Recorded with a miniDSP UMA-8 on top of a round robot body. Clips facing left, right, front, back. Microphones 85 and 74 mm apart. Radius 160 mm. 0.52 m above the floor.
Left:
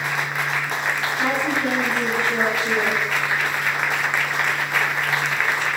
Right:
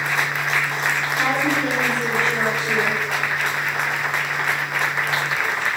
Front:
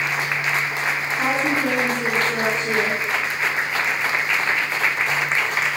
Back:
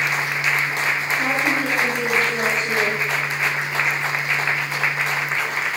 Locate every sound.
1.1 s a woman speaking: straight ahead, 6 m